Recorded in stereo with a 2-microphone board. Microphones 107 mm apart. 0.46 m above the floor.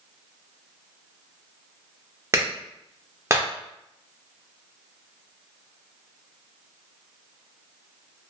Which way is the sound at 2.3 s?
25° right (ahead or behind).